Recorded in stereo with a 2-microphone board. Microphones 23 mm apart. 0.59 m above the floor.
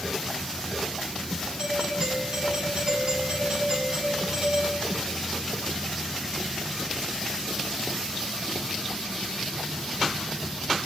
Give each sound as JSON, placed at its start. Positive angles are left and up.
{"t": 1.6, "sound": "a doorbell", "side_deg": -40, "distance_m": 6.0}